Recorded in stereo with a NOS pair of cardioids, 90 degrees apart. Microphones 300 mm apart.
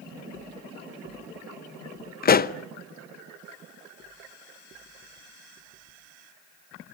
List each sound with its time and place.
2.2 s a pop: 30° left, 0.8 m